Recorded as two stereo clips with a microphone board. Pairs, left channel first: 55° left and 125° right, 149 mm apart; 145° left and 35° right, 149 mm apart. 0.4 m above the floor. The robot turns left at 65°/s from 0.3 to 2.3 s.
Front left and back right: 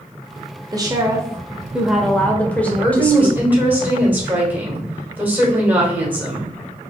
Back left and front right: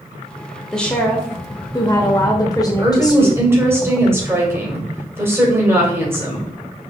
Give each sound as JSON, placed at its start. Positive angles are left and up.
{"t": 0.7, "sound": "a woman speaking", "azimuth_deg": -135, "distance_m": 0.8}
{"t": 2.8, "sound": "a woman speaking", "azimuth_deg": -70, "distance_m": 1.4}